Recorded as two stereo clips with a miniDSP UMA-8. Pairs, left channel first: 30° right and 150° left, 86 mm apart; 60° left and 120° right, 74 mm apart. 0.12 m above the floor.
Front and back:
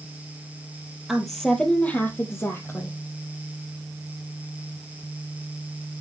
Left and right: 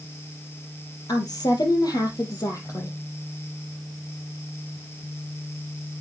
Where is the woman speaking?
65° left, 2.5 m; by 3.0 s 25° left, 4 m.